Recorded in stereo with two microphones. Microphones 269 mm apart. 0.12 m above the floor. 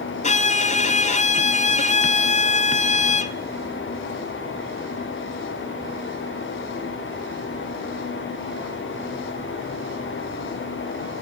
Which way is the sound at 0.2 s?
25° left (ahead or behind).